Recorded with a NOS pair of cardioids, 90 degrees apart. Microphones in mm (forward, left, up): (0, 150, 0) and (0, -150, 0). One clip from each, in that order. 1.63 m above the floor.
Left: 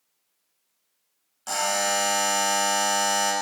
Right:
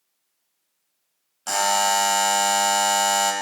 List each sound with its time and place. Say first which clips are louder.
1.5 s a buzzer: right 4 dB; 35° right, 1.9 m